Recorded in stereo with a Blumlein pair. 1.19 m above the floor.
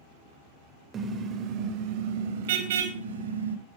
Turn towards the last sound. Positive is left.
turn(degrees=-65)